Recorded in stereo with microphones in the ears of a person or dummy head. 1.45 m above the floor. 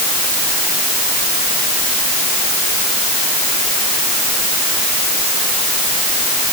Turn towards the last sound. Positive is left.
No sound to turn to.